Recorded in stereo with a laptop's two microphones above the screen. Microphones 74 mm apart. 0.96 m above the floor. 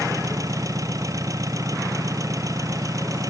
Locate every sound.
0.0 s an engine running: 50° right (ahead or behind)